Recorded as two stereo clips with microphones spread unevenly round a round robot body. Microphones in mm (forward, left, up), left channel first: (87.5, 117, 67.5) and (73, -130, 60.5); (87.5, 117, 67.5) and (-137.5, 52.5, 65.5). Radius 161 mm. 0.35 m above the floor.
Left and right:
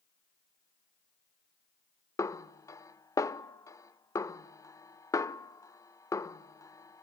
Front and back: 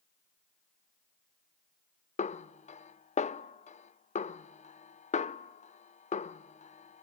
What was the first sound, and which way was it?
A snare drum, 20° left.